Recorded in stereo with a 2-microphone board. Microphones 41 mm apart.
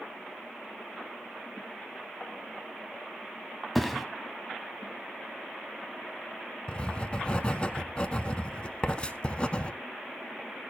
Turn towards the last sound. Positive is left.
turn(degrees=25)  # may be behind; listen again after turning